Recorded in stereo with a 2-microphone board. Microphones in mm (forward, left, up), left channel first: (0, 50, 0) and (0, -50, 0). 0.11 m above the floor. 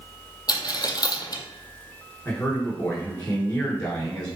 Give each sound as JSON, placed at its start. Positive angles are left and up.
{"t": 0.5, "sound": "a dropped coin", "side_deg": 40, "distance_m": 0.5}
{"t": 2.2, "sound": "a man speaking", "side_deg": 10, "distance_m": 1.3}